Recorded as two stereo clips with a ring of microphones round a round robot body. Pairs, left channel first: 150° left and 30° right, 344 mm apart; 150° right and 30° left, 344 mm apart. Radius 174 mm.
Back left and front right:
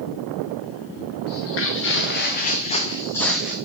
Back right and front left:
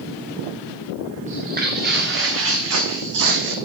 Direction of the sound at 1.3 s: 100° left.